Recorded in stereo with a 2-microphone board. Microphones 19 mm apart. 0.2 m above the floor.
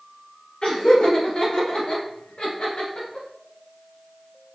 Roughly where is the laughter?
Left.